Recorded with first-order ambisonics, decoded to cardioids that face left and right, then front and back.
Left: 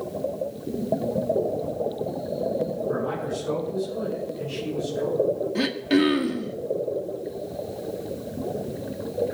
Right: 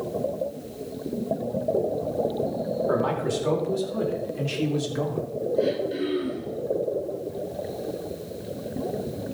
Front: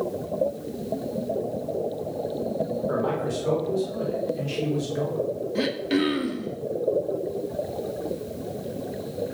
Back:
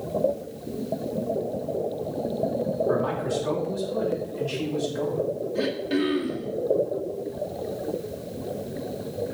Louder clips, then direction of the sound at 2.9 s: Right 3 dB, back 1 dB; 85° right.